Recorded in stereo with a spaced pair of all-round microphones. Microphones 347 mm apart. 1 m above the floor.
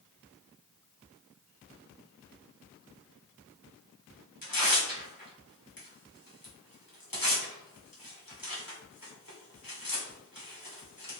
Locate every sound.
4.4 s tearing paper: 75° left (ahead or behind), 3 m